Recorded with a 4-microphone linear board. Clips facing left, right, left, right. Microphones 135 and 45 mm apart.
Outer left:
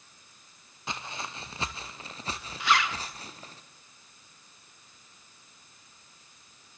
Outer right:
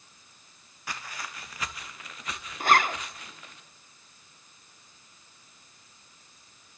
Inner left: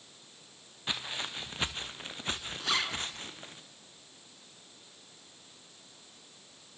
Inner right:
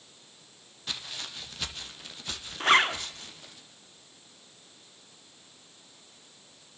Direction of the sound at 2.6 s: 50° right (ahead or behind).